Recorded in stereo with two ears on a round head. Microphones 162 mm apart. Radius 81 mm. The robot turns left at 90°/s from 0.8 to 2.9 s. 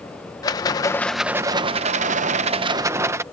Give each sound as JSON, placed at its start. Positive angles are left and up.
{"t": 0.4, "sound": "a rattle", "azimuth_deg": 30}